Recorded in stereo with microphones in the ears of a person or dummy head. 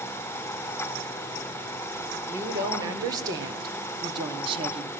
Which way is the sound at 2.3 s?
15° right (ahead or behind).